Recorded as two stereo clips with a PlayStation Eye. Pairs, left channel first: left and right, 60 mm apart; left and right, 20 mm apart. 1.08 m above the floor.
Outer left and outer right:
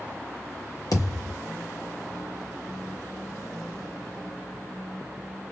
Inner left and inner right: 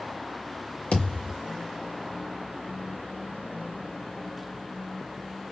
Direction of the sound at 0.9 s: 75° left (ahead or behind).